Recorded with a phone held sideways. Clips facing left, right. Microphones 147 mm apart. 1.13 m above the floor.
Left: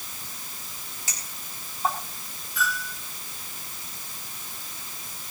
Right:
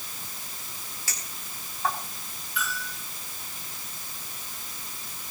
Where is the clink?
20° left (ahead or behind), 6 m.